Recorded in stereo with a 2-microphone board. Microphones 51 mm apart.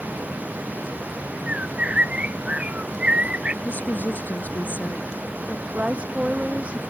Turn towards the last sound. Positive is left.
turn(degrees=-20)  # may be behind; listen again after turning